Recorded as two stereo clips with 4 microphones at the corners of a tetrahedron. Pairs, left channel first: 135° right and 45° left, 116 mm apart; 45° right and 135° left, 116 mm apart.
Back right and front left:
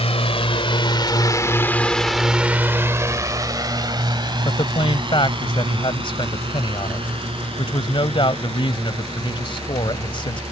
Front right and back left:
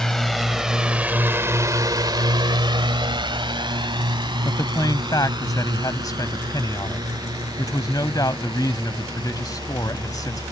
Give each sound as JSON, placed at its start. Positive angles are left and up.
{"t": 0.0, "sound": "a drone", "azimuth_deg": -130}
{"t": 4.5, "sound": "a man speaking", "azimuth_deg": -100}